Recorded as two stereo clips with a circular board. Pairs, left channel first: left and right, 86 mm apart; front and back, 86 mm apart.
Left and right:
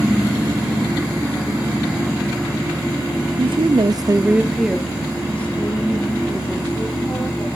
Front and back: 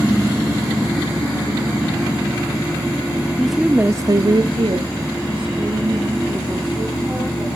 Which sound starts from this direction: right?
A woman speaking, at 3.4 s.